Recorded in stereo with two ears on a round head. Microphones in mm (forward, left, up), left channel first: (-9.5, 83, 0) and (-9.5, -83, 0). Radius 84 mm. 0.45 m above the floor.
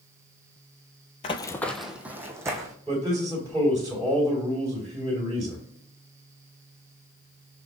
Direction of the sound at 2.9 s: 15° right (ahead or behind).